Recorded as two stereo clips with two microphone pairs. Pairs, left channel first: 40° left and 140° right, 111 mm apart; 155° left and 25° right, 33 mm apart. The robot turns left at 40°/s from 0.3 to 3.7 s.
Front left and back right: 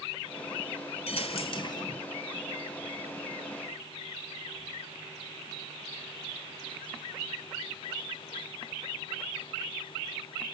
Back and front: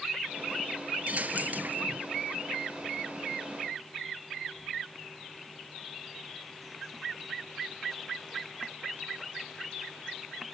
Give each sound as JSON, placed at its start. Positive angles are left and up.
{"t": 1.1, "sound": "a dropped coin", "azimuth_deg": 20, "distance_m": 1.3}